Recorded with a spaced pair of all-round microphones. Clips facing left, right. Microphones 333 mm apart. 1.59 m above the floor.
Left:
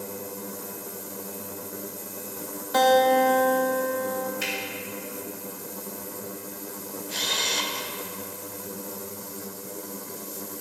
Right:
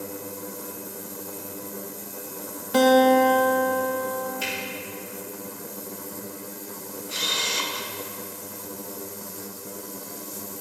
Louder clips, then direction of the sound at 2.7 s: Right 4 dB; 40° right (ahead or behind).